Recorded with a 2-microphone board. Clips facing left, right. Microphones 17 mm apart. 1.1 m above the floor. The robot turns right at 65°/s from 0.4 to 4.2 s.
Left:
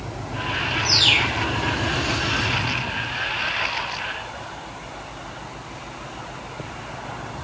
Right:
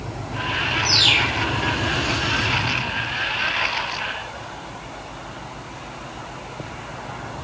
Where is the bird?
170° right, 2.5 m; by 1.4 s 135° right, 2.5 m.